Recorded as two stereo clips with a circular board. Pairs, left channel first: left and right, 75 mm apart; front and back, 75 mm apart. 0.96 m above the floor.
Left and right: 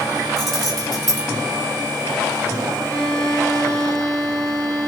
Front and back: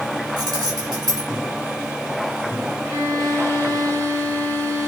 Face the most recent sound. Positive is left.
turn(degrees=160)